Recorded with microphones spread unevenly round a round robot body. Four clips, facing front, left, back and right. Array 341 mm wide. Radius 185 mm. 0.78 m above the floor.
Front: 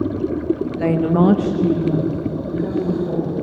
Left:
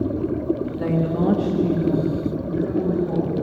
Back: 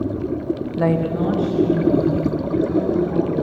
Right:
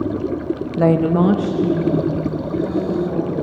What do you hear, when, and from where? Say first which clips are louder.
0.8 s a woman speaking: right 12 dB, front 3 dB; 110° right, 0.8 m; by 3.3 s 20° left, 3 m